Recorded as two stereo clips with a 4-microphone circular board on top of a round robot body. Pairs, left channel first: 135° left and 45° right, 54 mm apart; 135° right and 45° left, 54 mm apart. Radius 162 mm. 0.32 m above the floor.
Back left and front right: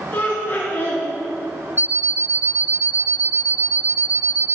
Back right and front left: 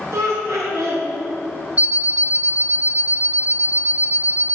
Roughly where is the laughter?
Left.